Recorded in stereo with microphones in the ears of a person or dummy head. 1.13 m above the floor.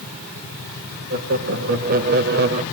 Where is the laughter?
45° right (ahead or behind), 1.4 m; by 2.6 s 35° right (ahead or behind), 0.8 m.